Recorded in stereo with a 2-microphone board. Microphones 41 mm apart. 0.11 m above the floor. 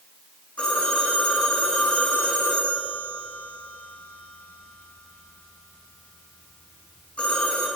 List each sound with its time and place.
0.6 s a phone ringing: 35° left (ahead or behind), 5.5 m